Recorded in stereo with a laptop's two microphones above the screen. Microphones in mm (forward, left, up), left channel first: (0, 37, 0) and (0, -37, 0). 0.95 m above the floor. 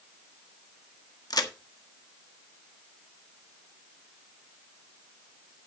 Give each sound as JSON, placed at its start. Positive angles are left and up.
{"t": 1.3, "sound": "a crack", "side_deg": 60, "distance_m": 1.4}